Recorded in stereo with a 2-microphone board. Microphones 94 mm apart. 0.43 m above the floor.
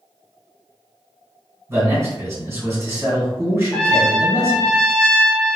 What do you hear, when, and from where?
1.7 s a man speaking: 30° right (ahead or behind), 1.9 m
3.7 s a trumpet: 10° left (ahead or behind), 0.6 m